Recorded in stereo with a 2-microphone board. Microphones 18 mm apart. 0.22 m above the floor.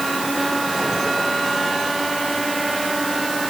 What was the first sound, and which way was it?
Only background noise.